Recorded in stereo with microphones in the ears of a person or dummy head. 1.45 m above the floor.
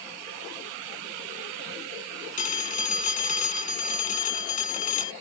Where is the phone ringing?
40° left (ahead or behind).